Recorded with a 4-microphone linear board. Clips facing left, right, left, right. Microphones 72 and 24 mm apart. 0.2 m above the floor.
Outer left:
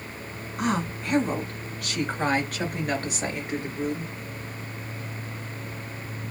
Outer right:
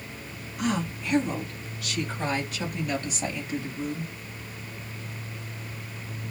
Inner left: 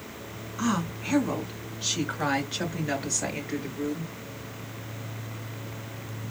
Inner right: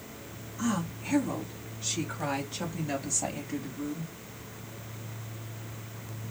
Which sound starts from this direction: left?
A woman speaking, at 0.6 s.